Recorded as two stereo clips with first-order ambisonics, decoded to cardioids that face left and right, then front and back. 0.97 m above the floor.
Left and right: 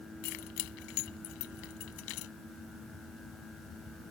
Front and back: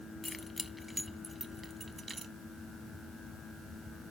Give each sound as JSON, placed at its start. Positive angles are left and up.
{"t": 0.2, "sound": "keys jangling", "azimuth_deg": 80}